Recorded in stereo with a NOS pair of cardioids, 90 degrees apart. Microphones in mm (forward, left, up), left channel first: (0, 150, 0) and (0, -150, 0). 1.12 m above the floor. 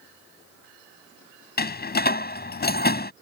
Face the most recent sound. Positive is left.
turn(degrees=30)